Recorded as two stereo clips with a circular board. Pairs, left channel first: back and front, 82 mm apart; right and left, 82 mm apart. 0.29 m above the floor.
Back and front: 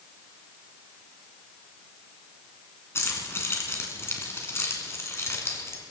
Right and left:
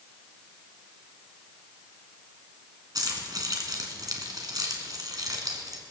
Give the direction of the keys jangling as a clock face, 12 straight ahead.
8 o'clock.